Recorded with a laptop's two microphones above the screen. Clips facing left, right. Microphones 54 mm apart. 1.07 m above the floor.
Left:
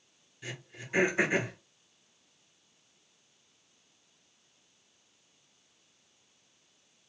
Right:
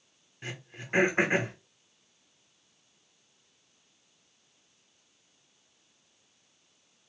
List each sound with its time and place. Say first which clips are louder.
0.4 s throat clearing: right 2 dB; 45° right (ahead or behind), 0.8 m